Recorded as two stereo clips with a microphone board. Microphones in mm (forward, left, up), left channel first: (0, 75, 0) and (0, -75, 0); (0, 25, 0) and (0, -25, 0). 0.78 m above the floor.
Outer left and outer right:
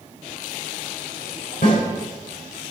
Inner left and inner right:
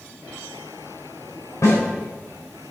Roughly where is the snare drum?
Left.